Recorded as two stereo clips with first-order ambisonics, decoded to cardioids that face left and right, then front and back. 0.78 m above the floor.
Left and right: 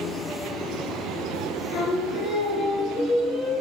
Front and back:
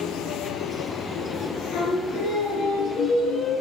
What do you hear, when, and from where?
1.7 s singing: 40° left, 6 m